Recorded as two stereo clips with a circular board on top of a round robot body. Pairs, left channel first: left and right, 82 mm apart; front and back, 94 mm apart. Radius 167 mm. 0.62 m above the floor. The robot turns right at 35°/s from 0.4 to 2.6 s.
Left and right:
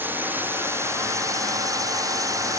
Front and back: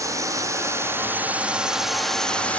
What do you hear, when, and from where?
0.0 s a drone: 145° right; by 2.6 s 70° right